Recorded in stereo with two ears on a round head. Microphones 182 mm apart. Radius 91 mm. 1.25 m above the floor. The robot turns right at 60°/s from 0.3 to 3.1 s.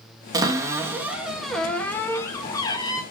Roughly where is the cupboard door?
Centre.